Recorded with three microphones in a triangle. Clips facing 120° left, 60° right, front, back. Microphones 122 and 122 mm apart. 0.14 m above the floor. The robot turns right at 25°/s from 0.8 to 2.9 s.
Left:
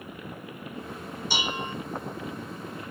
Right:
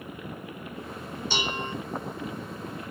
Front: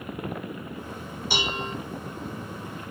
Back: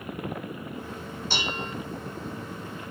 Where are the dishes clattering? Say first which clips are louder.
Even, front 3 dB; 60° left, 0.8 m; by 1.8 s 70° left, 0.8 m.